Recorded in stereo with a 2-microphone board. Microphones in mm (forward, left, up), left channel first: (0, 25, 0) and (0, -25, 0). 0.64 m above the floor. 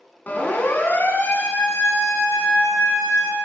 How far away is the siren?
About 6 m.